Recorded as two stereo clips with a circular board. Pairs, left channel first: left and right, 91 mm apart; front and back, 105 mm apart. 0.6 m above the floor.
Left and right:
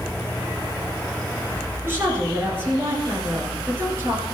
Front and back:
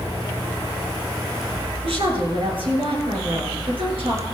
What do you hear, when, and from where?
1.8 s a woman speaking: 150° right, 8 m